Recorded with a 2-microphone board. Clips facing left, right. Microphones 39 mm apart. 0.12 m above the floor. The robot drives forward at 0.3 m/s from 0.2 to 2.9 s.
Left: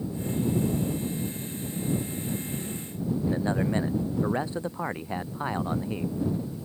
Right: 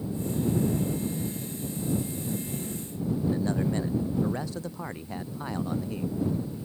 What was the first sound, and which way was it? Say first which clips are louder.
A man speaking: left 1 dB; 25° left (ahead or behind).